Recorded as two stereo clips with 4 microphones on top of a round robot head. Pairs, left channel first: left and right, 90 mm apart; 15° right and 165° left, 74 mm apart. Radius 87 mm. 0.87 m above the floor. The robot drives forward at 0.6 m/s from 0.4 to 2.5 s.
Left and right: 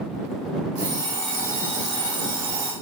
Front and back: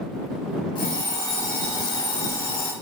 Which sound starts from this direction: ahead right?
An alarm clock, at 0.8 s.